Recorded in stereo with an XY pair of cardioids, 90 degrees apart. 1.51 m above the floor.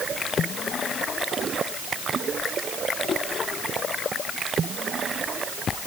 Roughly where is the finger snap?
No finger snap in this recording.